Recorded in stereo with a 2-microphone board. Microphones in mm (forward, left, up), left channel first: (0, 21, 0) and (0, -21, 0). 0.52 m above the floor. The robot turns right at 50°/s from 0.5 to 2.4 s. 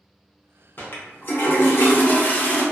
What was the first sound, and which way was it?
A toilet flushing, 55° left.